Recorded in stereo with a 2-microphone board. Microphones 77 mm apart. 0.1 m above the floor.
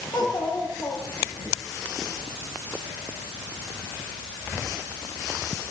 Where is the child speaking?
80° left, 8 m.